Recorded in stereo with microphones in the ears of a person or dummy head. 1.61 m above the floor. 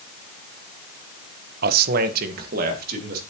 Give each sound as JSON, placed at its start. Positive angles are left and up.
{"t": 1.6, "sound": "a man speaking", "side_deg": -55, "distance_m": 0.8}